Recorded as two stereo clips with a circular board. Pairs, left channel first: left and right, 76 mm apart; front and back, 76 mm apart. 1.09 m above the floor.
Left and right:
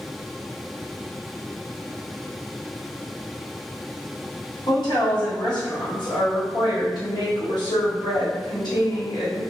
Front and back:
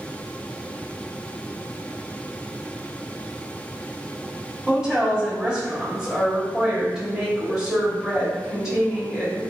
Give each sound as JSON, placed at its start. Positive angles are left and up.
{"t": 4.7, "sound": "a woman speaking", "azimuth_deg": 100, "distance_m": 1.6}